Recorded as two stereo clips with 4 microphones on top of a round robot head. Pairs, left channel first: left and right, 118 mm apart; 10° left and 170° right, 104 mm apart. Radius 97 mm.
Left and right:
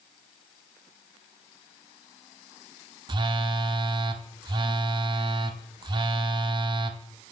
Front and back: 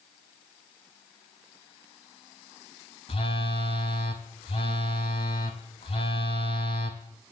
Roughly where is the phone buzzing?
Ahead right.